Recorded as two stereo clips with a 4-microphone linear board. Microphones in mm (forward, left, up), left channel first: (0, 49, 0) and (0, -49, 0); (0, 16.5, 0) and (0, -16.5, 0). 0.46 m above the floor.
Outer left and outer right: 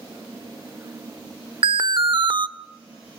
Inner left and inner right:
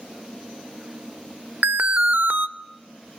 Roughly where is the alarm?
Right.